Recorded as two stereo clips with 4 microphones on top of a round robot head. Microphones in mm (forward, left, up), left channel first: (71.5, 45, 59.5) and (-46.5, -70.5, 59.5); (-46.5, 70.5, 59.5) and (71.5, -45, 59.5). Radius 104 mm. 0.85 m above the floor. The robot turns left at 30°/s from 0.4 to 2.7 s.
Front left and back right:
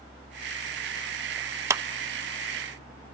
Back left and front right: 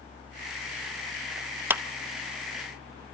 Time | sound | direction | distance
1.7 | a clap | 100° right | 0.7 m